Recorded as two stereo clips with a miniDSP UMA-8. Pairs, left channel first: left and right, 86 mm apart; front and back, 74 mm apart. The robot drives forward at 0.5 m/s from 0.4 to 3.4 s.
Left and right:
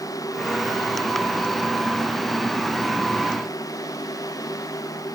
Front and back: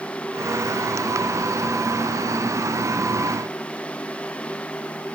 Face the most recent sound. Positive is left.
No sound to turn to.